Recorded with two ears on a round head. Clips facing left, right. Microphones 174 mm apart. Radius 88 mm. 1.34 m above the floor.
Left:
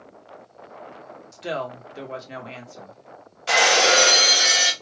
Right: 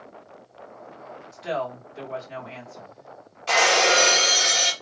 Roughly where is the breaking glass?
Centre.